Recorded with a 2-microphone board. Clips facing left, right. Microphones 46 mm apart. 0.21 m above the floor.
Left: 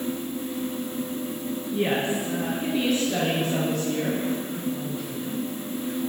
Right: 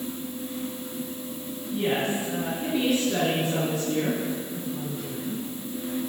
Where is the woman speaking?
10° left (ahead or behind), 2.0 m; by 5.4 s 15° right (ahead or behind), 5 m.